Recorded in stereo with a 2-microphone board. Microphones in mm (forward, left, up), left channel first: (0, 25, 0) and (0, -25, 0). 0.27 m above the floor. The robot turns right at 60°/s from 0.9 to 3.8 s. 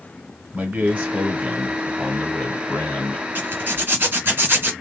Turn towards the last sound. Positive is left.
turn(degrees=-45)  # may be behind; listen again after turning